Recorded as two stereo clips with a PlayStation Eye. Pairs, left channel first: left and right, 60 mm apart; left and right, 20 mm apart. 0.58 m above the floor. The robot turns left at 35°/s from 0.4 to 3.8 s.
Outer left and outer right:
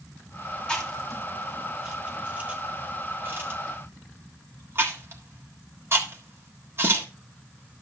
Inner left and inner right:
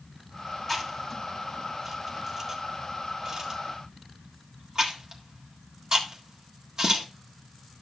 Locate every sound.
0.7 s chewing: 15° left (ahead or behind), 1.6 m; by 7.1 s 40° right (ahead or behind), 1.6 m